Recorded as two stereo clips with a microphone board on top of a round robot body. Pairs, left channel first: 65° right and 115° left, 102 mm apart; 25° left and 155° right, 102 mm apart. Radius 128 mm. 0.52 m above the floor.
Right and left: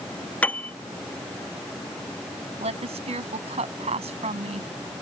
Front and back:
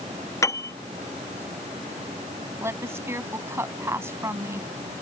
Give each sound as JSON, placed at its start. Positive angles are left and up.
{"t": 0.4, "sound": "a piano", "azimuth_deg": -5}
{"t": 2.6, "sound": "a woman speaking", "azimuth_deg": 135}